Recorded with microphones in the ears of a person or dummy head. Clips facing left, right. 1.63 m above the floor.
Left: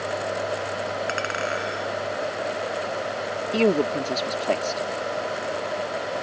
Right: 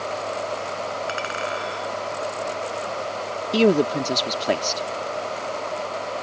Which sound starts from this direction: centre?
A man speaking, at 3.5 s.